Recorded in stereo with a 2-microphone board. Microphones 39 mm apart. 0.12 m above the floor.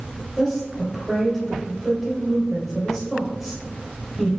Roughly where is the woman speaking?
Centre.